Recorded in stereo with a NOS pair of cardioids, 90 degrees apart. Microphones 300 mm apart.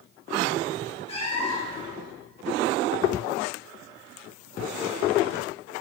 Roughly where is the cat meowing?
Ahead.